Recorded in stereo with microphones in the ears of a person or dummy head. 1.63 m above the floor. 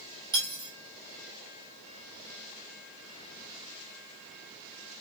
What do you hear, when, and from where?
0.3 s cutlery clinking: 20° right (ahead or behind), 2.5 m